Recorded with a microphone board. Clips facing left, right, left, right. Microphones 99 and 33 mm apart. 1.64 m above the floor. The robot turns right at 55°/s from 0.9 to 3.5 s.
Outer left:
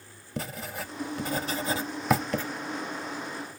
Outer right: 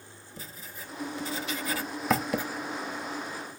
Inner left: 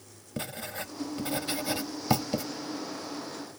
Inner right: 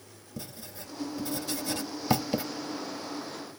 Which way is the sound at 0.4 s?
70° left (ahead or behind).